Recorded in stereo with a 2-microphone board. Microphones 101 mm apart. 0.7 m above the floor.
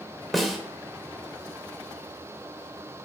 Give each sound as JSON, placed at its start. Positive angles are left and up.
{"t": 0.3, "sound": "a snare drum", "side_deg": 0, "distance_m": 1.4}